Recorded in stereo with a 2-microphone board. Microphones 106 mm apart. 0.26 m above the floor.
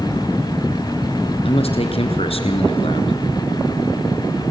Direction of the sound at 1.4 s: 65° left (ahead or behind).